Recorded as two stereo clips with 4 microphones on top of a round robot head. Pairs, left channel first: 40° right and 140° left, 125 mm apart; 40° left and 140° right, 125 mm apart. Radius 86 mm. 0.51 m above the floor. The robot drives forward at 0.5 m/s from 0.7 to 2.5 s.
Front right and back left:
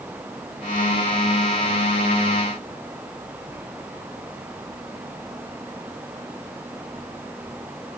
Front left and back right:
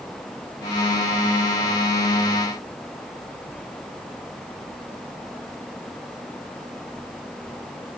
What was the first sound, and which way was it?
Only background noise.